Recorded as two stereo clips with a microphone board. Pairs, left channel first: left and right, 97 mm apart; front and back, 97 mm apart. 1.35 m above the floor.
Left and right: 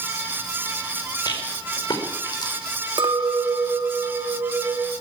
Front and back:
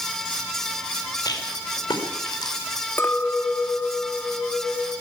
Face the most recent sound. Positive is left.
turn(degrees=-65)